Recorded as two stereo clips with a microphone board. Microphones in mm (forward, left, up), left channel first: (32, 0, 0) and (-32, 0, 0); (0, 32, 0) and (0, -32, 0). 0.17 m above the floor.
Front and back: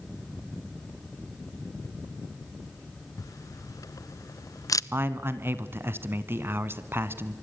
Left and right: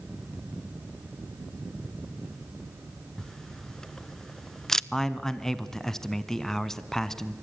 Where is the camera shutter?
10° left, 0.5 m.